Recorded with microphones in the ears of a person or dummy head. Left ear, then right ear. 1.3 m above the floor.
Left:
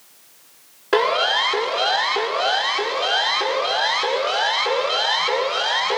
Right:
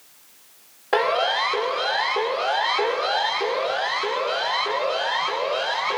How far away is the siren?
About 5 m.